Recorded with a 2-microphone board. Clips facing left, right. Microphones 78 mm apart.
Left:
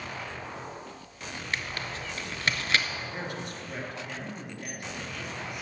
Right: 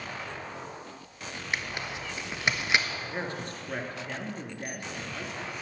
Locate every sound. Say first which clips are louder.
1.5 s tearing paper: right 1 dB; 20° right (ahead or behind), 0.5 m
2.9 s a man speaking: right 1 dB; 35° right (ahead or behind), 1.7 m